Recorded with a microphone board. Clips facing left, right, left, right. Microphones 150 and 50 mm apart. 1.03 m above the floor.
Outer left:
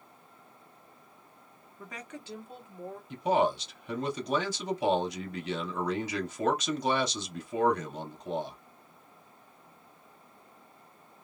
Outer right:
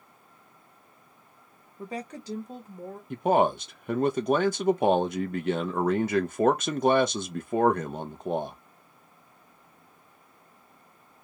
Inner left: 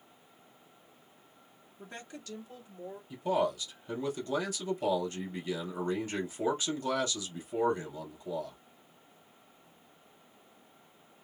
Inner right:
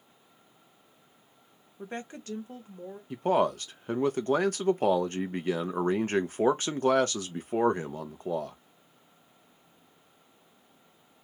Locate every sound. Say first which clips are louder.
1.8 s a woman speaking: outer right 8 dB, inner right 7 dB; 30° right (ahead or behind), 0.6 m; by 3.0 s 40° right (ahead or behind), 1.2 m
3.1 s a man speaking: outer right 4 dB, inner right 5 dB; 50° right (ahead or behind), 0.6 m